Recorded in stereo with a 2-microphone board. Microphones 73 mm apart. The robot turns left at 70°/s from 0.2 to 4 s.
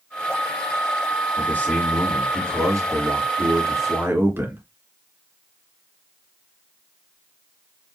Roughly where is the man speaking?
Ahead left.